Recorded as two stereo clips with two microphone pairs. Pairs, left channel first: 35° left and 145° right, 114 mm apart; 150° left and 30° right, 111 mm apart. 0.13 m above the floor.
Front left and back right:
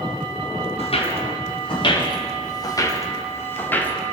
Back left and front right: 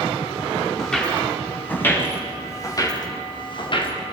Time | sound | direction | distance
0.8 | footsteps | 65° left | 6 m